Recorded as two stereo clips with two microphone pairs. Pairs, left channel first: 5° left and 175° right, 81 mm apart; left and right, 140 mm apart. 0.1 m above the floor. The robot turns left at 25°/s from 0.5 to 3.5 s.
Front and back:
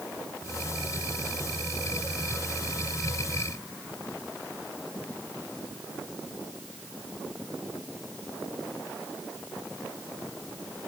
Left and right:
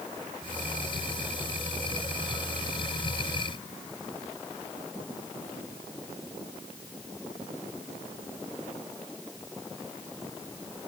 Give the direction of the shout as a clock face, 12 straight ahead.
I don't hear a shout.